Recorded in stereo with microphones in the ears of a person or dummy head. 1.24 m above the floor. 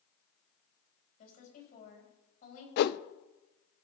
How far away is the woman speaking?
About 6.5 m.